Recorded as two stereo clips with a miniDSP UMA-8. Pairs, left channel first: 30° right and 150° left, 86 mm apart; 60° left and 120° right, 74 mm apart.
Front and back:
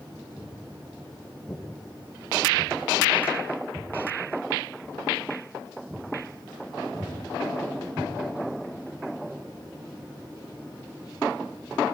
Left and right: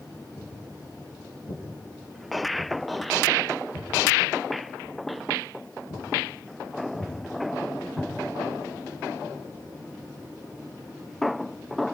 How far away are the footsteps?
About 7.5 m.